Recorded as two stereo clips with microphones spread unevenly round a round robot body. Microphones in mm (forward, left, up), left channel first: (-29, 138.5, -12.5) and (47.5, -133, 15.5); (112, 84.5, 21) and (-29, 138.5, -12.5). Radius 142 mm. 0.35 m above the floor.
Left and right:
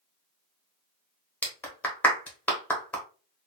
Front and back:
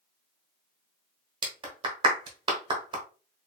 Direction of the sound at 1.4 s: Straight behind.